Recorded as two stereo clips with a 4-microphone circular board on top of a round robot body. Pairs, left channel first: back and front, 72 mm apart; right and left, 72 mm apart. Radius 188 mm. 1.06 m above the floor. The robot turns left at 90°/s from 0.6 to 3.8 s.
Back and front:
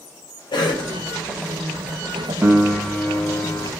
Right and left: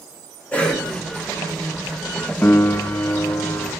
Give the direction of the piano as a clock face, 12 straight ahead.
1 o'clock.